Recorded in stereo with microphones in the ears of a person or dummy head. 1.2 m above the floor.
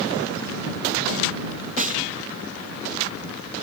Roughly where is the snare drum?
Right.